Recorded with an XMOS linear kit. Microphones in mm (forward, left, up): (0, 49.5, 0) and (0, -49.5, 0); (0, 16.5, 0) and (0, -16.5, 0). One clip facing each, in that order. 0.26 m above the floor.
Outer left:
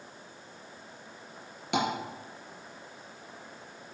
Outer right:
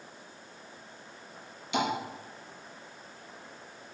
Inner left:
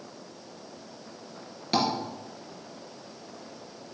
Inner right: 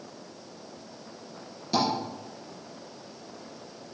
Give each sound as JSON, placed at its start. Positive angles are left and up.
{"t": 1.7, "sound": "tapping", "side_deg": 65, "distance_m": 3.0}